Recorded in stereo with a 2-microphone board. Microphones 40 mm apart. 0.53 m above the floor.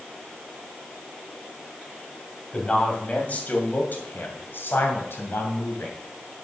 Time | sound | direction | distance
2.5 | a man speaking | 30° left (ahead or behind) | 3 m